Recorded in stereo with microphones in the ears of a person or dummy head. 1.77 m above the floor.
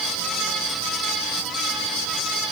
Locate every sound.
Only background noise.